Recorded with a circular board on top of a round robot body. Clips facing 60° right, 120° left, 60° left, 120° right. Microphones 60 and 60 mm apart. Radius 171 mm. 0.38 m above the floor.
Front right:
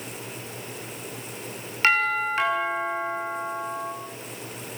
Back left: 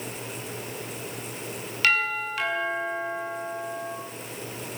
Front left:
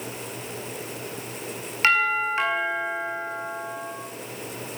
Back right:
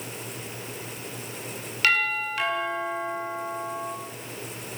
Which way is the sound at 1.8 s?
Straight ahead.